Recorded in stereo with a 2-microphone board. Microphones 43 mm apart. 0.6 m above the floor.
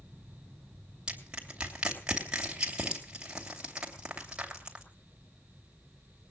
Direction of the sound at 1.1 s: 20° right (ahead or behind).